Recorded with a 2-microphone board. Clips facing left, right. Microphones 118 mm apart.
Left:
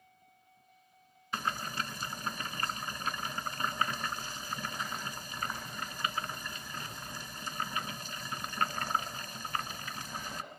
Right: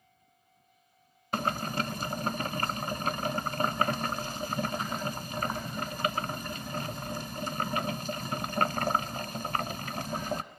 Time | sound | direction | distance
1.3 | boiling | 45° right (ahead or behind) | 0.9 m